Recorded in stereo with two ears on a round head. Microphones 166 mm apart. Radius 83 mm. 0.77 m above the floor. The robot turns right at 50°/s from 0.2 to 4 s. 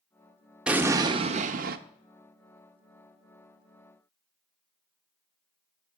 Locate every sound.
0.7 s an explosion: 175° right, 0.5 m; by 1.8 s 120° right, 0.5 m